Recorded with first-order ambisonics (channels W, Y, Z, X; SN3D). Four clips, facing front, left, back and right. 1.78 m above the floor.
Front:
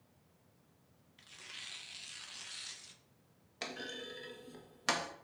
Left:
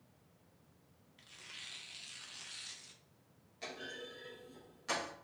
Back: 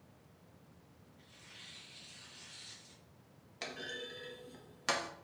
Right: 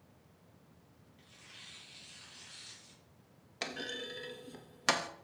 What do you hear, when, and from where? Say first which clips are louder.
1.2 s tearing paper: left 4 dB, front 6 dB; 25° left, 0.6 m
3.6 s a clunk: right 6 dB, even; 85° right, 0.6 m